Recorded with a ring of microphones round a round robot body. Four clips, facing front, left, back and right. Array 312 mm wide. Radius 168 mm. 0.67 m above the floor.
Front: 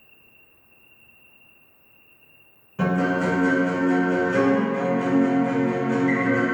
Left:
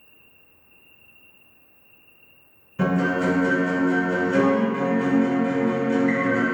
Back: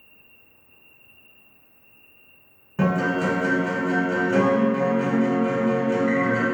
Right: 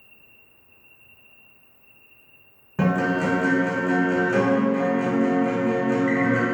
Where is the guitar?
110° right, 1.5 m.